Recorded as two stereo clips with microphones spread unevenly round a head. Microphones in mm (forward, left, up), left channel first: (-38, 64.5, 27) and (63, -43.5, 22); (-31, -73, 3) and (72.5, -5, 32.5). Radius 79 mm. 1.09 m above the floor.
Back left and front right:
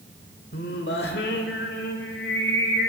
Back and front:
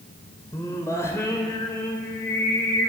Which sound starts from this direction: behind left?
Singing, at 0.5 s.